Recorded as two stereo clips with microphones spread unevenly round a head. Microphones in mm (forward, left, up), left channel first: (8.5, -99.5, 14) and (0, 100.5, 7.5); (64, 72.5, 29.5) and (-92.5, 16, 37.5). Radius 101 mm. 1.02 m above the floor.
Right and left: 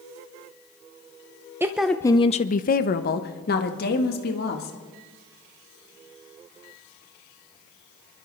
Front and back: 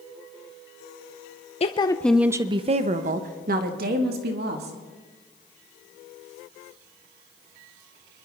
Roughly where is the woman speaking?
Ahead left.